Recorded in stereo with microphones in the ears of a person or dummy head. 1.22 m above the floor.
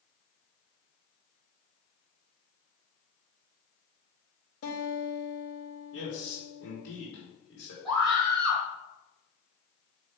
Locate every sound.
4.6 s a guitar: 80° left, 2 m
5.9 s a man speaking: 75° left (ahead or behind), 3 m
7.8 s a scream: centre (ahead or behind), 1.3 m